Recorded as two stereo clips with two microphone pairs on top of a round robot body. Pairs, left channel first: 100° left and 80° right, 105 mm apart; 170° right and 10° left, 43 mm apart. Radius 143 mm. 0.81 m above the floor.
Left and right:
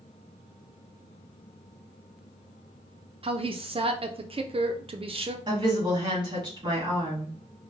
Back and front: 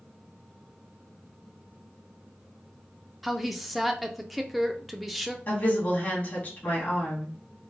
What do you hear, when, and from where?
3.2 s a woman speaking: 70° right, 0.6 m
5.5 s a woman speaking: 130° right, 2.0 m